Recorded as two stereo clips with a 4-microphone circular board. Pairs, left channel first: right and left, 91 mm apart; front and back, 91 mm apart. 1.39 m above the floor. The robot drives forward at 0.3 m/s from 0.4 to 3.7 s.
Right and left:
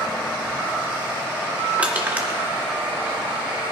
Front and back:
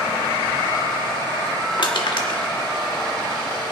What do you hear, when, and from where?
1.8 s crushing: 20° left, 1.5 m